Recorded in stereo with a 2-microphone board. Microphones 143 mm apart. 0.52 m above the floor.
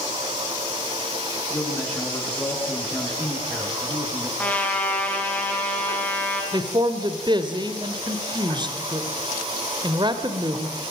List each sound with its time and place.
1.5 s a man speaking: 10° left (ahead or behind), 8 m
4.4 s a trumpet: 10° left (ahead or behind), 6 m
6.5 s a man speaking: 30° right (ahead or behind), 2 m